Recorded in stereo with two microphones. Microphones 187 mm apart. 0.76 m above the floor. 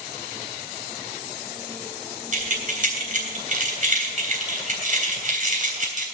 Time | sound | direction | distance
2.3 | keys jangling | 45° right (ahead or behind) | 3 m